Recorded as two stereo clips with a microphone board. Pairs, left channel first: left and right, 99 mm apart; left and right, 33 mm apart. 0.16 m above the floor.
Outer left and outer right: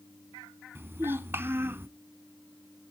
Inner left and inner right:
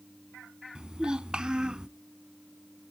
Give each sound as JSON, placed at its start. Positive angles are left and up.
{"t": 0.8, "sound": "a child speaking", "side_deg": -25, "distance_m": 0.7}